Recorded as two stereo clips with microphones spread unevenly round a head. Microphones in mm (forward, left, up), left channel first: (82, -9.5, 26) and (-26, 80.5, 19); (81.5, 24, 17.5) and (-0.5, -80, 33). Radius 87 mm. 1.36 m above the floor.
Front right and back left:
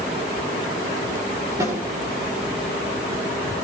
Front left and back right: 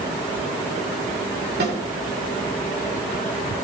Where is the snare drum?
145° right, 4.5 m.